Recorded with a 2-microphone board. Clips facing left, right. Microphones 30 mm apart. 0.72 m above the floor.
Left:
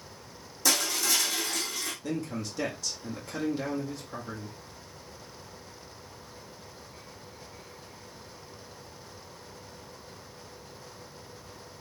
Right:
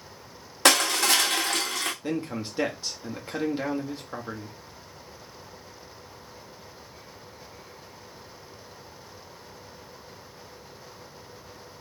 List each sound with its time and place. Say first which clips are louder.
0.7 s crushing: right 7 dB; 60° right (ahead or behind), 0.8 m
2.0 s a man speaking: right 3 dB; 30° right (ahead or behind), 1.0 m